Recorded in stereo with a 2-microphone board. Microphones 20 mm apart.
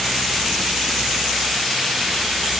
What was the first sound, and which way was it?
Only background noise.